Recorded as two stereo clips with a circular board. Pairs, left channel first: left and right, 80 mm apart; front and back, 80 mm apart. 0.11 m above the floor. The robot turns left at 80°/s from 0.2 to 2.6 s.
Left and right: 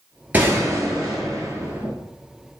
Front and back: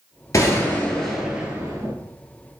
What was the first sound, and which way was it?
A gunshot, 25° right.